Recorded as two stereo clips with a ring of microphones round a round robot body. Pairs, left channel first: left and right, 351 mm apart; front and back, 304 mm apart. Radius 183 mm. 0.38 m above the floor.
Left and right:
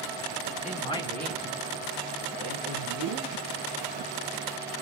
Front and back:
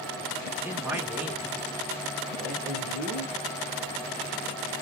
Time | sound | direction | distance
0.6 | a man speaking | 105° left | 1.4 m